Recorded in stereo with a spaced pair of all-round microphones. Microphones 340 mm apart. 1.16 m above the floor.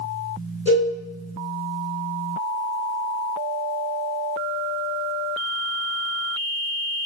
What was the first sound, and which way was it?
A cowbell, 45° right (ahead or behind).